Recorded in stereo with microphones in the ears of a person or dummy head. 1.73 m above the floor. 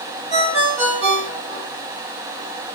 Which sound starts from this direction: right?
A ringtone, at 0.3 s.